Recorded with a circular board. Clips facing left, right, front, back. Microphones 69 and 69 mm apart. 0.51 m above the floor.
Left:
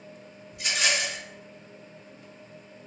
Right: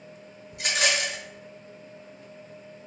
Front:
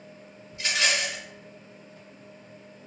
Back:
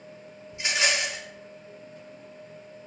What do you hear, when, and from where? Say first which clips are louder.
0.5 s a rattle: right 2 dB, even; 110° right, 0.8 m